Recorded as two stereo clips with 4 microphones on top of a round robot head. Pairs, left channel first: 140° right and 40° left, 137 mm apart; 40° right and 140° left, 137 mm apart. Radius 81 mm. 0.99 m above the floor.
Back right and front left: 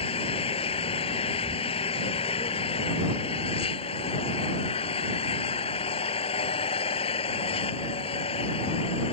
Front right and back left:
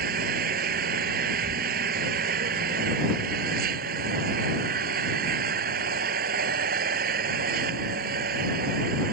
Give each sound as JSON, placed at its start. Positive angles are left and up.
{"t": 0.0, "sound": "an engine running", "azimuth_deg": 165}